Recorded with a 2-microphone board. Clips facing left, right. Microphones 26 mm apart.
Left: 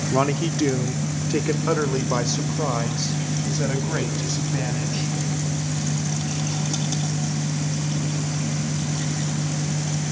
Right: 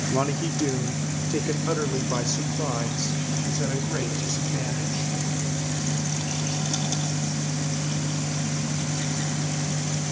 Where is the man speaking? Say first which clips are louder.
Left 5 dB; 25° left (ahead or behind), 1.1 m; by 5.2 s 15° left (ahead or behind), 4 m.